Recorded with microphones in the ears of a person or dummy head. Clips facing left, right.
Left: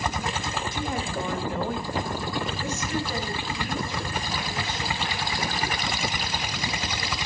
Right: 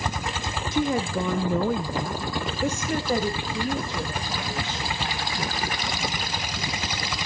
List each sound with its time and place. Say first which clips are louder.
0.7 s a woman speaking: right 10 dB; 55° right (ahead or behind), 0.8 m; by 5.4 s 20° right (ahead or behind), 2 m